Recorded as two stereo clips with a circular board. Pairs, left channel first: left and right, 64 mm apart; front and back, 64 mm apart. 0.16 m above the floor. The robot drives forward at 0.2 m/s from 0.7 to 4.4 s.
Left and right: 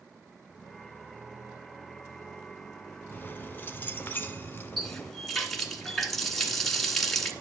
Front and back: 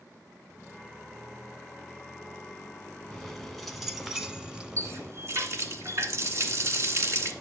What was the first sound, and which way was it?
Keys jangling, 75° left.